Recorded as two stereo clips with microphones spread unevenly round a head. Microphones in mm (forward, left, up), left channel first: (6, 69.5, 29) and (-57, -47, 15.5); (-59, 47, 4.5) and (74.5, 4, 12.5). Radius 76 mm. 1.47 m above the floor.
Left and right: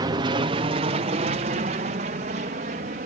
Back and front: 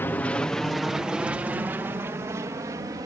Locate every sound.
0.0 s an aircraft: 135° right; by 3.1 s 85° right